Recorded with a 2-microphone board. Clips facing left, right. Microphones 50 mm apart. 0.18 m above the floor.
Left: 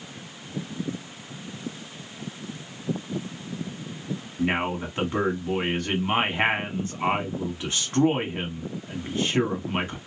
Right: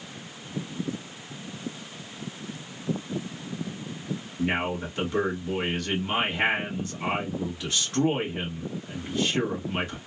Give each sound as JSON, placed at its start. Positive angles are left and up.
{"t": 4.4, "sound": "a man speaking", "side_deg": 30, "distance_m": 1.3}